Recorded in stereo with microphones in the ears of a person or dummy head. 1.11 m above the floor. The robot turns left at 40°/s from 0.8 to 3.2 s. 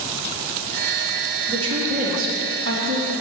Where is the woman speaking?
25° right, 1.9 m; by 3.1 s 90° right, 1.9 m.